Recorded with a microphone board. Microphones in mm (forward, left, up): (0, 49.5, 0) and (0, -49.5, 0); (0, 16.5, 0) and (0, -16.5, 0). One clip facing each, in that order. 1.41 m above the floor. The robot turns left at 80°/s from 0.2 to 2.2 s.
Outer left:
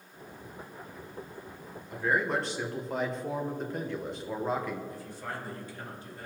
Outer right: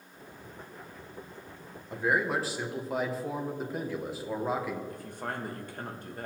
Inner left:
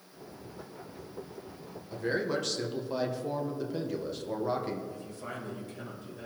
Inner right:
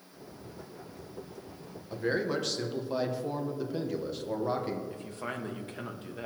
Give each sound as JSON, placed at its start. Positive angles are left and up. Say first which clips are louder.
{"t": 1.9, "sound": "a man speaking", "louder": "even, inner right 1 dB", "side_deg": -30, "distance_m": 1.2}
{"t": 4.9, "sound": "a man speaking", "louder": "outer right 2 dB, inner right 2 dB", "side_deg": -55, "distance_m": 1.5}